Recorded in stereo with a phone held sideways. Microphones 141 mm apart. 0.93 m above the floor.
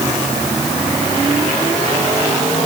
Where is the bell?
I don't hear a bell.